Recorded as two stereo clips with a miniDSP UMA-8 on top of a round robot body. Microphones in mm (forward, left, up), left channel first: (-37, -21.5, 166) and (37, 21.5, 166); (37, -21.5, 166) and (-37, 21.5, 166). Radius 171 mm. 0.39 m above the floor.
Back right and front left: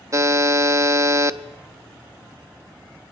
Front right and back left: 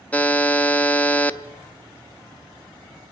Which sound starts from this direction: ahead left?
A buzzer, at 0.1 s.